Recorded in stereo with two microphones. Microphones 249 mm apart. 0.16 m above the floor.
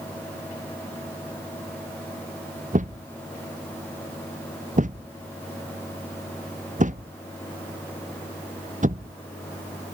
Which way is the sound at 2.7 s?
30° right (ahead or behind).